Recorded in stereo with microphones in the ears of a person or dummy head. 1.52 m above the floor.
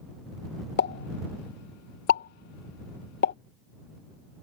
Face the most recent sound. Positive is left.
turn(degrees=65)  # may be behind; listen again after turning